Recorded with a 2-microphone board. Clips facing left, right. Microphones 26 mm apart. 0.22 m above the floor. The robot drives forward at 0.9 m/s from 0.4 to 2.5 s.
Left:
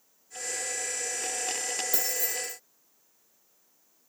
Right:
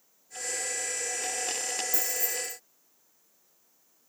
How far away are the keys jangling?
About 4.5 m.